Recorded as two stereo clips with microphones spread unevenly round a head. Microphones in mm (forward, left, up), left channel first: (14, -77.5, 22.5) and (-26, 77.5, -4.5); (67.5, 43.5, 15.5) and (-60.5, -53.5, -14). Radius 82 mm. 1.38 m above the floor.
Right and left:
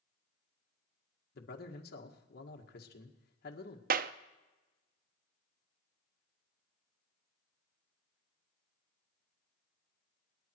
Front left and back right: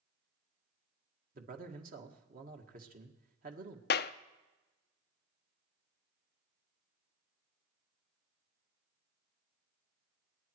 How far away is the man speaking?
About 1.9 m.